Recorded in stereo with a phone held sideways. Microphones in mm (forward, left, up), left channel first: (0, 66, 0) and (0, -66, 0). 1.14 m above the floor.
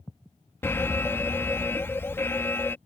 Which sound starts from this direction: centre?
An alarm, at 0.6 s.